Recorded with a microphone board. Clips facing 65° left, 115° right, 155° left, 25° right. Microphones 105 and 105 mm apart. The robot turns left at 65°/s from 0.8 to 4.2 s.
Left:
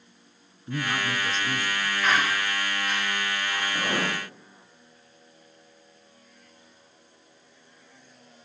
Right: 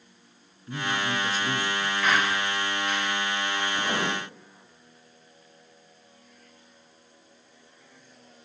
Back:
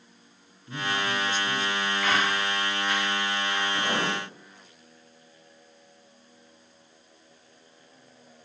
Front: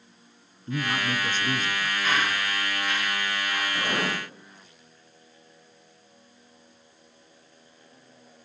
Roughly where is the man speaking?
Ahead.